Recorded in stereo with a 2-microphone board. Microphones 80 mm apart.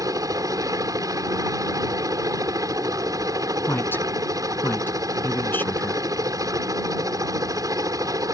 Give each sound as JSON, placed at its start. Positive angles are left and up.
{"t": 0.0, "sound": "a helicopter", "side_deg": -50}
{"t": 3.7, "sound": "a woman speaking", "side_deg": 30}